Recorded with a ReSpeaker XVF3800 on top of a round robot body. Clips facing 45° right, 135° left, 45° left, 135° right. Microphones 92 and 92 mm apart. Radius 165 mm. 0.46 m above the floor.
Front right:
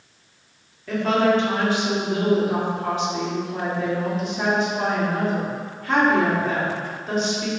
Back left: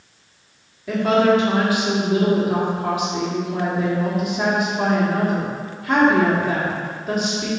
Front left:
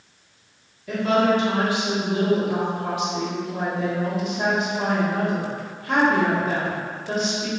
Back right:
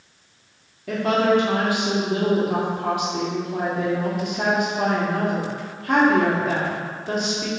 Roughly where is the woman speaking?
Behind right.